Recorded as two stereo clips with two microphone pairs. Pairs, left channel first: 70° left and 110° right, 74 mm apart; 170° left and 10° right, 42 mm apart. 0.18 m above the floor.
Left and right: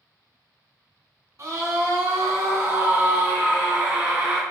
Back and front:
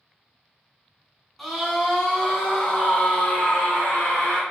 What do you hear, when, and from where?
1.4 s a scream: 105° right, 1.6 m; by 4.4 s 175° right, 2.0 m